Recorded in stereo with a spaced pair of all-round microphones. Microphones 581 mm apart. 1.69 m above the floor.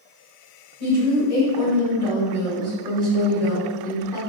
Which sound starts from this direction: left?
A woman speaking, at 0.8 s.